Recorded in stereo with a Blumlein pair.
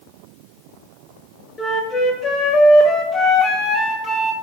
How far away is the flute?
About 1.7 m.